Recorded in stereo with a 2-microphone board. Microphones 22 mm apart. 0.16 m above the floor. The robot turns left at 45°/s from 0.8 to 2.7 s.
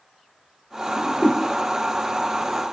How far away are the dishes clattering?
No dishes clattering in this recording.